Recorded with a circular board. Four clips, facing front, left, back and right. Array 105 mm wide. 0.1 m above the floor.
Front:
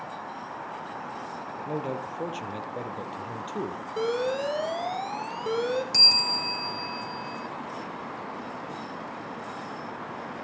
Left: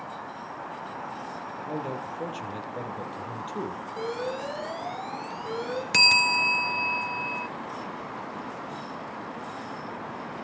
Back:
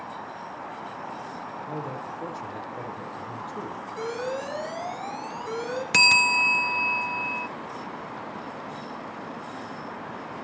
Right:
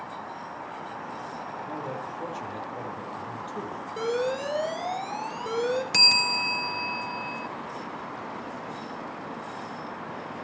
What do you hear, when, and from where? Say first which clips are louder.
1.6 s a man speaking: left 3 dB, front 4 dB; 20° left, 3 m
4.0 s an alarm: right 5 dB, front 4 dB; 30° right, 3.5 m
5.9 s a bell: left 3 dB, back 8 dB; 160° left, 1.0 m